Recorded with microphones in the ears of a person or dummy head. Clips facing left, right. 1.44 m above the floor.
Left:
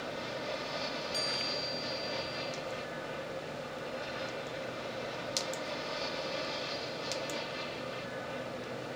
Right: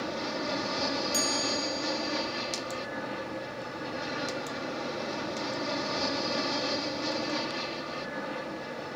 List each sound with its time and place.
0.0 s an aircraft: 70° right (ahead or behind)
1.1 s a chime: 45° right (ahead or behind)